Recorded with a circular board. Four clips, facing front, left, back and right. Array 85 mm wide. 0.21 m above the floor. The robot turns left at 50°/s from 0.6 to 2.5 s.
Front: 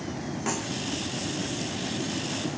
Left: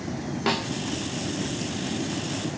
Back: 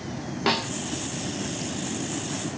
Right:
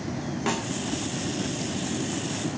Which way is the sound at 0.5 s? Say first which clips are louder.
Left 3 dB, back 7 dB; 160° left.